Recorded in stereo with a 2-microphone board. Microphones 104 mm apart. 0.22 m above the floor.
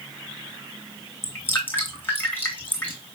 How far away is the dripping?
About 2.5 m.